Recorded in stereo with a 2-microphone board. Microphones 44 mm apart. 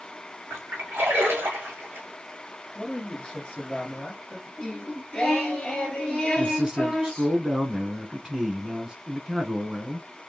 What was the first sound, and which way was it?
A splash, 75° right (ahead or behind).